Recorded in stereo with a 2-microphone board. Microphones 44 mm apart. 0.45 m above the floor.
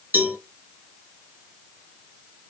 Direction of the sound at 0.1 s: 45° right (ahead or behind).